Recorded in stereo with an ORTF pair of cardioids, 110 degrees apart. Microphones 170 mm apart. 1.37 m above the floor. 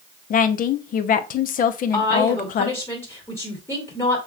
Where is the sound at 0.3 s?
55° left, 0.7 m.